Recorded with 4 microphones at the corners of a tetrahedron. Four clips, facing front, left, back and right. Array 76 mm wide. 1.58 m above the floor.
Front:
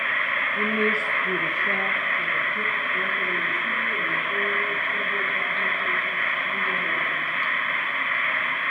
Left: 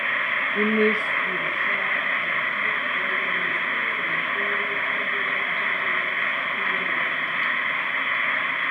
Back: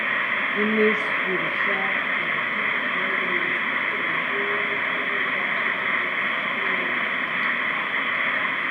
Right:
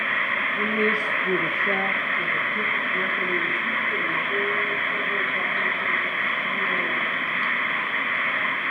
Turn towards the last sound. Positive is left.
turn(degrees=-85)